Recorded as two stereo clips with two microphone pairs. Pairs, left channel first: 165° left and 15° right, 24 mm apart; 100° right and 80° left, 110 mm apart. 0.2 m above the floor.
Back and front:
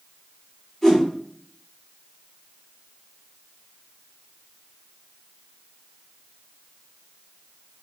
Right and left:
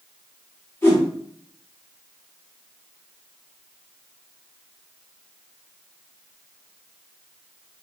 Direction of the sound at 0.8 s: 105° right.